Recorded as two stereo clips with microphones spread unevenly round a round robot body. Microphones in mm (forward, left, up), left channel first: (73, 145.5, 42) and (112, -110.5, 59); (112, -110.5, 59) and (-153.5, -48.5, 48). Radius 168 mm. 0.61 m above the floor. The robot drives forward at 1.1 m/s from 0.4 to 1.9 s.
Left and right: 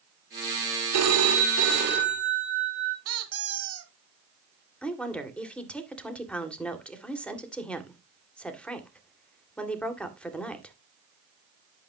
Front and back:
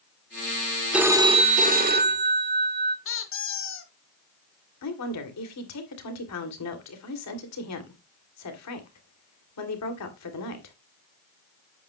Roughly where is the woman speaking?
Ahead.